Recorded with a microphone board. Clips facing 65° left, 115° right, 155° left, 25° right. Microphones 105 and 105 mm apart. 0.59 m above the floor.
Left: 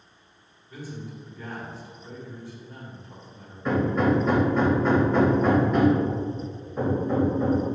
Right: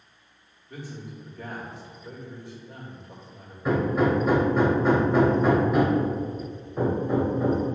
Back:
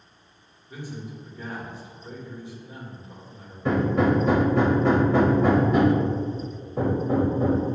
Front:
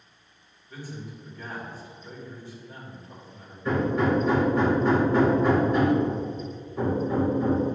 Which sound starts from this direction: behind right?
A man speaking, at 0.7 s.